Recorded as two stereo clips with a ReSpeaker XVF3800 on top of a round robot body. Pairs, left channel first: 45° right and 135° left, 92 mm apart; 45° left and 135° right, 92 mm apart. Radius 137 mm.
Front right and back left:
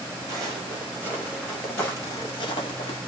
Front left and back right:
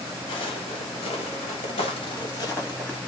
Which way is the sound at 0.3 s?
75° left.